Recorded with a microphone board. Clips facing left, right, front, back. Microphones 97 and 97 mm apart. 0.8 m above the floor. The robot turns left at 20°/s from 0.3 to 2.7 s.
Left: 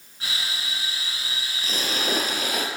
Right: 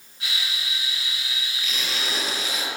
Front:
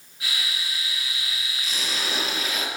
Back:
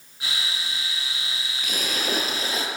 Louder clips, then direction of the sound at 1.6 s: Left 5 dB, back 4 dB; 145° left.